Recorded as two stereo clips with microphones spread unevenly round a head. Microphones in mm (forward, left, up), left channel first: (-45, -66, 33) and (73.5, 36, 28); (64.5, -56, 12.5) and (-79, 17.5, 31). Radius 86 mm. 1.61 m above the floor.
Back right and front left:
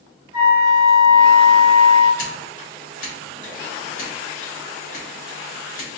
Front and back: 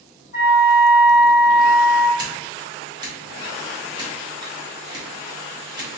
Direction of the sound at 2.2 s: 145° right.